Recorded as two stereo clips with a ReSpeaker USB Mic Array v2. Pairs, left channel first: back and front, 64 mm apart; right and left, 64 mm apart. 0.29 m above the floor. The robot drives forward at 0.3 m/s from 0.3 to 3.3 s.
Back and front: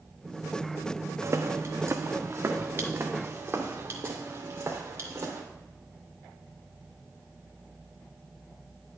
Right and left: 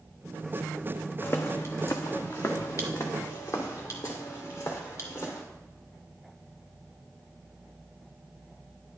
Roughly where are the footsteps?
Ahead right.